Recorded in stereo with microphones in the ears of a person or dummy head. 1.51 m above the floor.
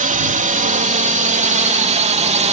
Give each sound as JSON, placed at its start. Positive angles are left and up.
{"t": 0.0, "sound": "a drone", "side_deg": -35}